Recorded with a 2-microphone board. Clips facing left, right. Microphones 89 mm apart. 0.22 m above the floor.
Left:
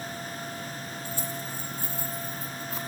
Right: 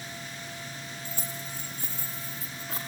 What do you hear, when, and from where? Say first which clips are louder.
1.1 s keys jangling: left 5 dB; 50° right (ahead or behind), 4.5 m; by 2.8 s 80° right, 5 m